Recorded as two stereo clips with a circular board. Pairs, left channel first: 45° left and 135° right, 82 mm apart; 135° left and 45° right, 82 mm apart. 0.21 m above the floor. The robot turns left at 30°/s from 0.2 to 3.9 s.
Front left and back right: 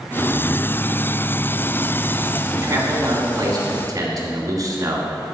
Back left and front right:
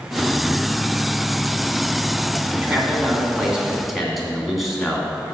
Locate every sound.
2.5 s a man speaking: 95° right, 1.7 m; by 5.1 s 135° right, 1.7 m